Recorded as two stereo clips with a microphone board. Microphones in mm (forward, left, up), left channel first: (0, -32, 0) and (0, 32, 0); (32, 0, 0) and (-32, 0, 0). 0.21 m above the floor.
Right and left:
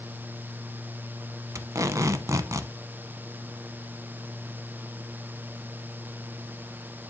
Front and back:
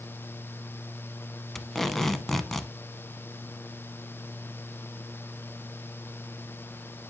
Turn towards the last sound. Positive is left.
turn(degrees=85)